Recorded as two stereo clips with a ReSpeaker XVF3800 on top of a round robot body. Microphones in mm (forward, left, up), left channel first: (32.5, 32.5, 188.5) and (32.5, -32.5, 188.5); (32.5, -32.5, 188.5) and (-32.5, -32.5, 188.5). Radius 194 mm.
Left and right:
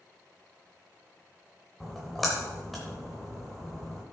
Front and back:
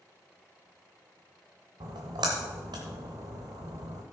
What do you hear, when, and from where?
1.8 s a splash: straight behind, 0.7 m